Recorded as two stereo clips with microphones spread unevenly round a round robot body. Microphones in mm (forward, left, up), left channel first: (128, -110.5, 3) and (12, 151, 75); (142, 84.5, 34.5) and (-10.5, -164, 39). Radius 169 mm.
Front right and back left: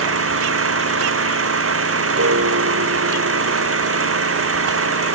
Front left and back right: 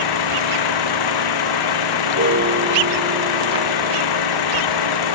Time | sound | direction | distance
0.0 | an engine running | 70° left | ?
2.1 | a piano | 175° left | ?